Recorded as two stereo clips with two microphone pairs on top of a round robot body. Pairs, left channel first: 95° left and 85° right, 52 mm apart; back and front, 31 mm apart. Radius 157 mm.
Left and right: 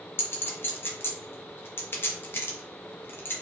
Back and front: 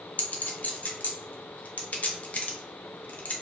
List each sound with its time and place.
0.2 s a clink: 145° left, 0.6 m